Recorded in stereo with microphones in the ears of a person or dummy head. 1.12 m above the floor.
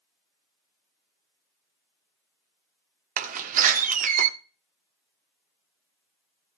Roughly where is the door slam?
Right.